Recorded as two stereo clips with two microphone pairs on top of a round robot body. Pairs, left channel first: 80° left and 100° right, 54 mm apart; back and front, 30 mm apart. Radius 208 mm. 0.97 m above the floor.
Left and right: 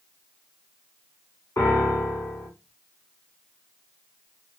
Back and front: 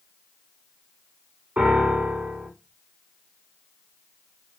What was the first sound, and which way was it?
A piano, 40° left.